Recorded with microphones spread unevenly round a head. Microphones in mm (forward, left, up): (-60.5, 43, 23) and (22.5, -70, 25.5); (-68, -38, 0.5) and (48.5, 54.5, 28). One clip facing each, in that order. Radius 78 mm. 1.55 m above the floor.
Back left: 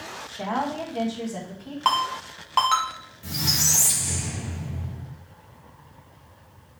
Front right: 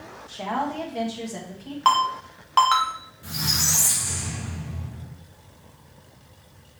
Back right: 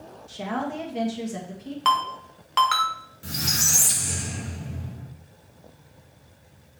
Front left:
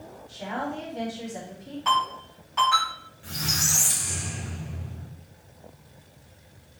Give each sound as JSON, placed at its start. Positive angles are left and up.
{"t": 0.3, "sound": "a woman speaking", "azimuth_deg": -140, "distance_m": 1.9}
{"t": 1.9, "sound": "a ringtone", "azimuth_deg": -150, "distance_m": 1.4}
{"t": 3.2, "sound": "a squeak", "azimuth_deg": -175, "distance_m": 1.0}